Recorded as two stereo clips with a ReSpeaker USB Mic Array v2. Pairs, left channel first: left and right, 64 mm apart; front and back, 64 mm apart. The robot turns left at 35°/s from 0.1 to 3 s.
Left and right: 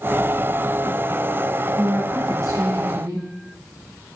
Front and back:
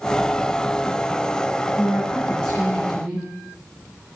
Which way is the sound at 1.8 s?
50° right.